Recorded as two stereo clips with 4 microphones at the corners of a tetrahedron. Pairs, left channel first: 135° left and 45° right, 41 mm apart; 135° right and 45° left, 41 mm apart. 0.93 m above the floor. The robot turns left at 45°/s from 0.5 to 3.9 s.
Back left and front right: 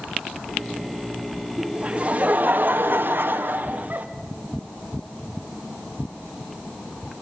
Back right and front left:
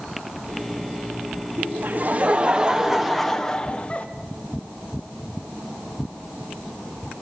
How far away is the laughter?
About 1.3 m.